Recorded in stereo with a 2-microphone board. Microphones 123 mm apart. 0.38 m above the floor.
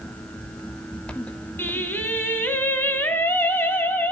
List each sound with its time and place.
1.6 s singing: 15° left (ahead or behind), 3 m